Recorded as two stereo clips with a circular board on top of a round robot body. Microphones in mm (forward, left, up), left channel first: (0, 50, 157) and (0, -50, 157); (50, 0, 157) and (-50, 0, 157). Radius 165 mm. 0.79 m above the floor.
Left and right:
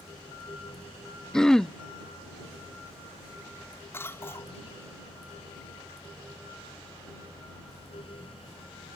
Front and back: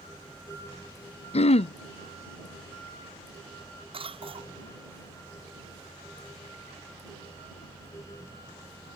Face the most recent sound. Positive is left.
turn(degrees=155)